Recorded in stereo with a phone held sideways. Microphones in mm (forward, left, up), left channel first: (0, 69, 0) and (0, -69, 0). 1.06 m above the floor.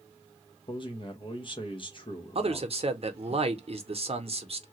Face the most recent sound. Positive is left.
turn(degrees=-50)  # may be behind; listen again after turning